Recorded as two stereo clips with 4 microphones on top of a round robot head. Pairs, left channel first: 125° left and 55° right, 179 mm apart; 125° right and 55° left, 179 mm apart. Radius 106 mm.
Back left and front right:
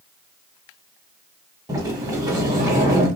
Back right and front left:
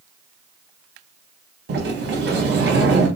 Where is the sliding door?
20° left, 0.7 m.